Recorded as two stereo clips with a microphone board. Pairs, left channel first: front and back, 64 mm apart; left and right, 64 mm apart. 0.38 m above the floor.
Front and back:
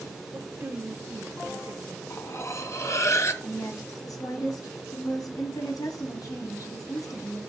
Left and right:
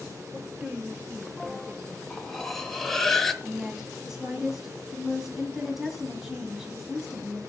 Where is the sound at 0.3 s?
140° right, 1.1 m.